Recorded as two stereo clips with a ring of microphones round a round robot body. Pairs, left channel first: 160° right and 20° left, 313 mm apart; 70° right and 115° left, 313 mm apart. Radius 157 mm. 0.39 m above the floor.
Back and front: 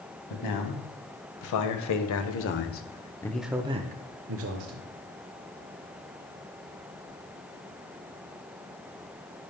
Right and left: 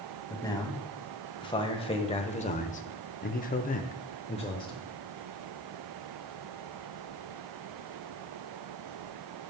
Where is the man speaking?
145° right, 2.5 m; by 4.8 s 5° left, 1.3 m.